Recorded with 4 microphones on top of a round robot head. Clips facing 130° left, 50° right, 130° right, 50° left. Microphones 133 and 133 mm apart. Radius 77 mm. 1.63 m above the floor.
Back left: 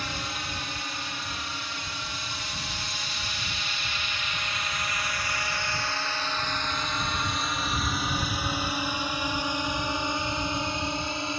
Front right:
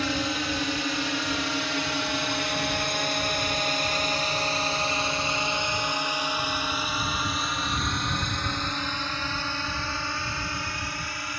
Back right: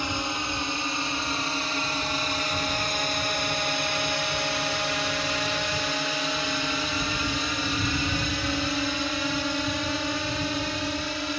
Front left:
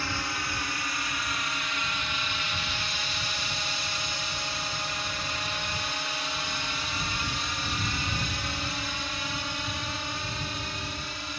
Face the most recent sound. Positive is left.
turn(degrees=-160)